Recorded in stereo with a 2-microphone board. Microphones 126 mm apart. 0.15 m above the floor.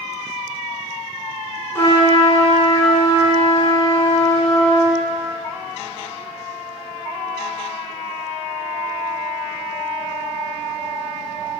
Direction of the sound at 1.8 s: 20° left (ahead or behind).